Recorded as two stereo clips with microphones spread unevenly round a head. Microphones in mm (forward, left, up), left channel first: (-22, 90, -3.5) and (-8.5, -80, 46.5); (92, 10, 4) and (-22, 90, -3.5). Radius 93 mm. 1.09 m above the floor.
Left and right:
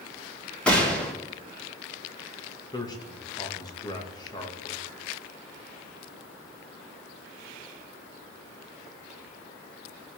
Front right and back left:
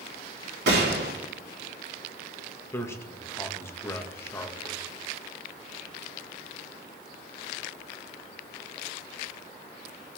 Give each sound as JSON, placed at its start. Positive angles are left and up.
{"t": 0.7, "sound": "a gunshot", "azimuth_deg": 180, "distance_m": 2.0}
{"t": 2.7, "sound": "a man speaking", "azimuth_deg": 35, "distance_m": 1.6}